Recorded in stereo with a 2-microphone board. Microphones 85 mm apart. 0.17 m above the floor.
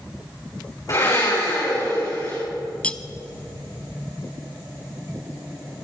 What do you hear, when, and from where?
0.9 s a blender: 45° left (ahead or behind), 7 m
2.8 s cutlery clinking: 15° left (ahead or behind), 0.6 m